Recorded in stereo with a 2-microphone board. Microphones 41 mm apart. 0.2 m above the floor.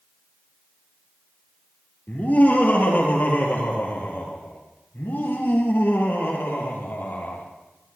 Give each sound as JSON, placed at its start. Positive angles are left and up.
{"t": 2.1, "sound": "laughter", "side_deg": 50, "distance_m": 5.5}